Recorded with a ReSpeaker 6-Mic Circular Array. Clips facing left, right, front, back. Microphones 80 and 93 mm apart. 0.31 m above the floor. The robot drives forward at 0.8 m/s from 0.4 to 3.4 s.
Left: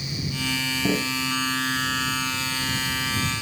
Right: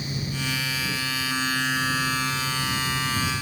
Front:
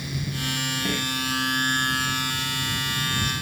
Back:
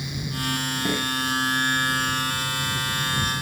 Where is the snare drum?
105° left; by 1.1 s 110° left.